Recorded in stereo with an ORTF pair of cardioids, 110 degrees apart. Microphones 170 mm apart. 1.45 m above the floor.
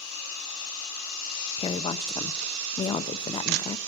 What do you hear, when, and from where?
1.6 s a woman speaking: 30° left, 0.9 m